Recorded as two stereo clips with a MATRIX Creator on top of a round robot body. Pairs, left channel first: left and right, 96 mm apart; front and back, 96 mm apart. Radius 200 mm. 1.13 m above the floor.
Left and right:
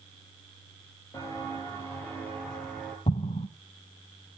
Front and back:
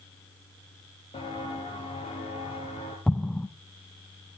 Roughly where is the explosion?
Left.